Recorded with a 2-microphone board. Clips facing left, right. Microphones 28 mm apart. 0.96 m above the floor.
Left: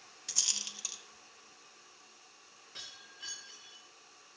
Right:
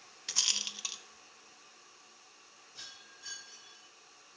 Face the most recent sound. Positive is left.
turn(degrees=85)